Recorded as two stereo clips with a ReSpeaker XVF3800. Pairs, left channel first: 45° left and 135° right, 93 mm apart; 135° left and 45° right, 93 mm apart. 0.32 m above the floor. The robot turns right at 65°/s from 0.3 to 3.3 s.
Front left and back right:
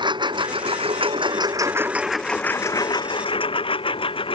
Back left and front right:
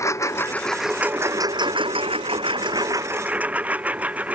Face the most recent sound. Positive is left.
turn(degrees=30)